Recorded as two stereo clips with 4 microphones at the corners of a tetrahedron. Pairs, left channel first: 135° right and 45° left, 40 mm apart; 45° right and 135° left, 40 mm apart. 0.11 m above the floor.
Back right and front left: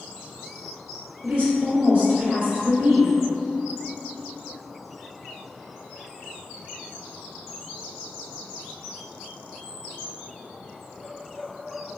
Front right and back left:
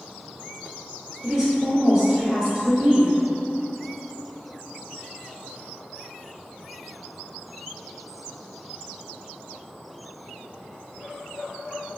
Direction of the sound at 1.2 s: 85° left.